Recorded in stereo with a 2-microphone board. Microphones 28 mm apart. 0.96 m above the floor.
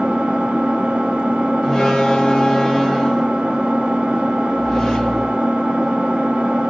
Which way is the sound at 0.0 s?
40° right (ahead or behind).